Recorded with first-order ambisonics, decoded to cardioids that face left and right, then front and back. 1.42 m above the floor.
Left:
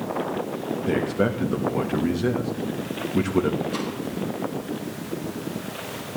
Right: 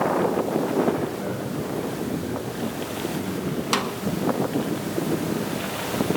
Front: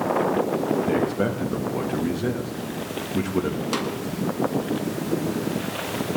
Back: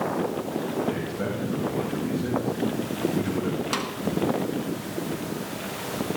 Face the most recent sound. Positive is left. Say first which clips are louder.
# right 5 dB, front 3 dB
turn(degrees=-95)